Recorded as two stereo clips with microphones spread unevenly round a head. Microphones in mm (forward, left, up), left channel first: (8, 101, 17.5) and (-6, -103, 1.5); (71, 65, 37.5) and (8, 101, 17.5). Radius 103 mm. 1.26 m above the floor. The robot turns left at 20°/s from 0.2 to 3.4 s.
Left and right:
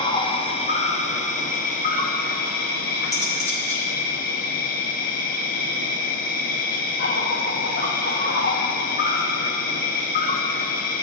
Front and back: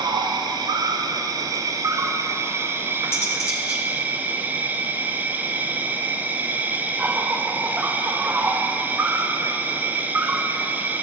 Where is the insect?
140° left, 0.8 m; by 11.0 s 75° left, 0.8 m.